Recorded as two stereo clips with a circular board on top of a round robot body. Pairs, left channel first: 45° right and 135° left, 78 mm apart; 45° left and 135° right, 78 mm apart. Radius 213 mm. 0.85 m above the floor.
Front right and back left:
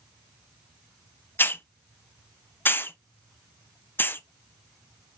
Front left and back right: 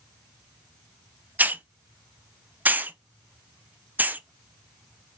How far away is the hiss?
About 0.6 m.